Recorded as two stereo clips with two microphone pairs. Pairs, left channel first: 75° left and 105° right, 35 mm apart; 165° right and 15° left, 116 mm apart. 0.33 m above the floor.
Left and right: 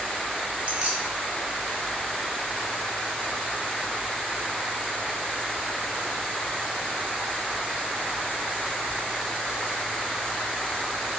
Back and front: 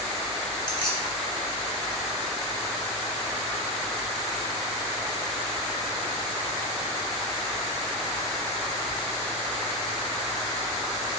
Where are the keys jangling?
150° right, 0.7 m.